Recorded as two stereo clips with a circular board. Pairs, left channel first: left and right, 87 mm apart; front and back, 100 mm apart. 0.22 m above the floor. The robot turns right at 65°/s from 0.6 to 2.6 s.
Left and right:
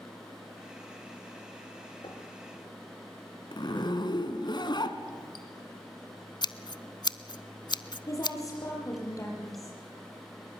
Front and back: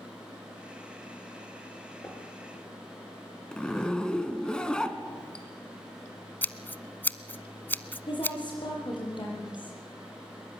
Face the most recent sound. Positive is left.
turn(degrees=40)